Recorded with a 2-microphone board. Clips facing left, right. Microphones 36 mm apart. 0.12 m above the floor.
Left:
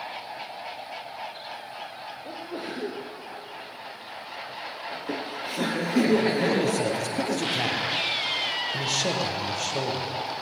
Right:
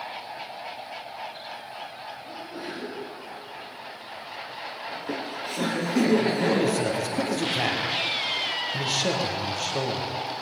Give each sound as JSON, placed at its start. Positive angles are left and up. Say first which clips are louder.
{"t": 2.2, "sound": "a sneeze", "louder": "left 3 dB", "side_deg": 65, "distance_m": 4.0}
{"t": 4.9, "sound": "laughter", "louder": "even", "side_deg": 10, "distance_m": 2.0}
{"t": 6.4, "sound": "a man speaking", "louder": "right 1 dB", "side_deg": -5, "distance_m": 4.0}